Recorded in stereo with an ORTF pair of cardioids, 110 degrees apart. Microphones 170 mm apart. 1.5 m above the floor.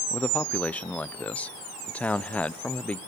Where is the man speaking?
10° left, 0.7 m.